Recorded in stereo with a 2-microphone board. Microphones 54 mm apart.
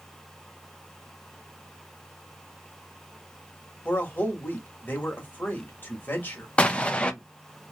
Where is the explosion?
20° left (ahead or behind), 0.5 m.